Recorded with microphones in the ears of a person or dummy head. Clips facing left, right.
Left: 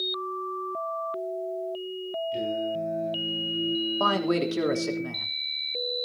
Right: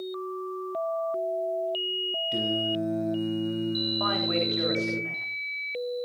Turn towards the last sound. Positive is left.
turn(degrees=55)  # may be behind; listen again after turning